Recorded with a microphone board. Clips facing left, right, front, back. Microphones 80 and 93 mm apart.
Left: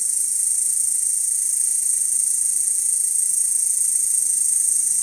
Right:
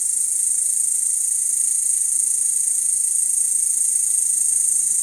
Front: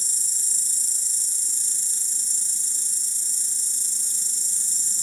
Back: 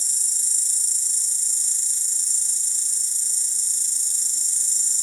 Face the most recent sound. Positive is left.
turn(degrees=20)